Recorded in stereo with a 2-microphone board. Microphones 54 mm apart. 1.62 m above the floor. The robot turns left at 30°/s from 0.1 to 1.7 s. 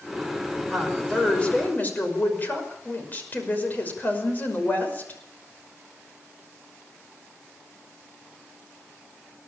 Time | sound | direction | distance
0.7 | a woman speaking | centre (ahead or behind) | 5.5 m